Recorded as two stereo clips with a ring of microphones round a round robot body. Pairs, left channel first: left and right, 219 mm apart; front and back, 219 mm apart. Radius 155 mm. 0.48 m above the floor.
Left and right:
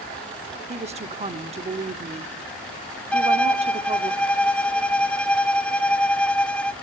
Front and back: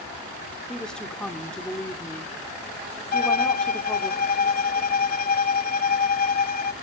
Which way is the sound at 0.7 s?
85° right.